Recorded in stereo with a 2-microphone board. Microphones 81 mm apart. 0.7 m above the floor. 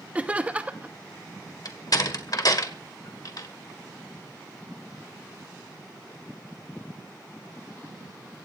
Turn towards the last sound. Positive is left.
turn(degrees=55)  # may be behind; listen again after turning